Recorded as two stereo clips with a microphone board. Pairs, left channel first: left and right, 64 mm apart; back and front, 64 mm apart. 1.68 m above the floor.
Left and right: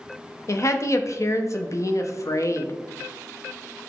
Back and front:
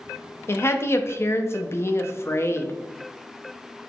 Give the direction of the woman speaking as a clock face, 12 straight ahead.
8 o'clock.